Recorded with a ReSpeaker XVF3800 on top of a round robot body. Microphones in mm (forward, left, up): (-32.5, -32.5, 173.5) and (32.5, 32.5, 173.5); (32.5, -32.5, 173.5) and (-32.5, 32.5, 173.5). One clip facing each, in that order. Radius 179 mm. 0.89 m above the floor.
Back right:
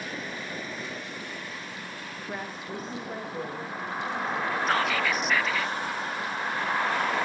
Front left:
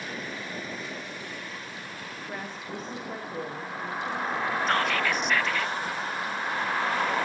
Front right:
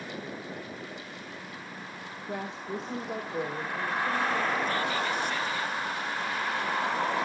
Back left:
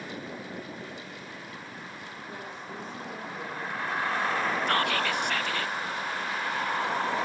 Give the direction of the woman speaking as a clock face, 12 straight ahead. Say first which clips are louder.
Back right 2 dB, front right 7 dB; 2 o'clock.